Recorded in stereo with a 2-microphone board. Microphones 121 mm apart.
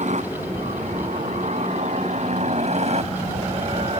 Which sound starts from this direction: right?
A helicopter, at 0.0 s.